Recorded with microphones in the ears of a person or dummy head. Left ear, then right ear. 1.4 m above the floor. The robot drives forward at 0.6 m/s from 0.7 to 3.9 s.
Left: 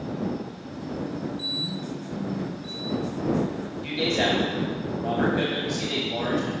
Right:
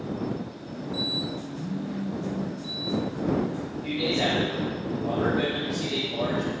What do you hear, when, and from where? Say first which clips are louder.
1.6 s a phone buzzing: left 4 dB; 55° right (ahead or behind), 0.7 m; by 2.6 s 30° right (ahead or behind), 1.1 m
3.8 s a man speaking: left 2 dB; 75° left (ahead or behind), 1.3 m